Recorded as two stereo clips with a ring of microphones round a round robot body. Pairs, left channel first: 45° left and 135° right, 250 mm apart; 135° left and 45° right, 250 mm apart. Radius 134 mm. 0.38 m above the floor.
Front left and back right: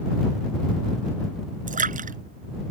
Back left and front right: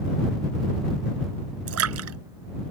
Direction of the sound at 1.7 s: 75° right.